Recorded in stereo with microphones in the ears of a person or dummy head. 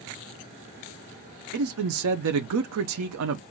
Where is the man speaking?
70° right (ahead or behind), 0.6 m.